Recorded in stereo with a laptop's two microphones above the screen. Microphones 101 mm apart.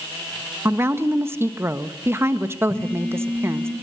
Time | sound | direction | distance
0.7 | a woman speaking | 25° right (ahead or behind) | 1.4 m
2.7 | a phone buzzing | 10° left (ahead or behind) | 5.5 m